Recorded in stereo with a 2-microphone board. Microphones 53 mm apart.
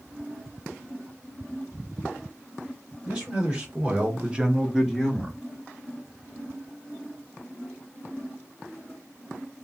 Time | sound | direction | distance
3.0 | a man speaking | 20° right (ahead or behind) | 2 m